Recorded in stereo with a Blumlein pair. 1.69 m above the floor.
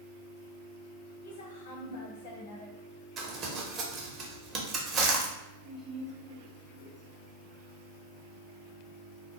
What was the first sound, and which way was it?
A woman speaking, 65° left.